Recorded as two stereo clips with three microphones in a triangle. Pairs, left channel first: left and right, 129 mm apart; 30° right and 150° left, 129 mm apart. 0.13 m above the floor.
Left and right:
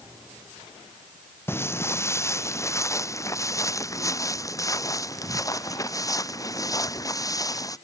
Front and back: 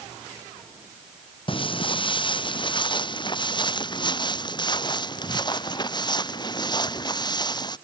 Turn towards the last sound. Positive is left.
turn(degrees=25)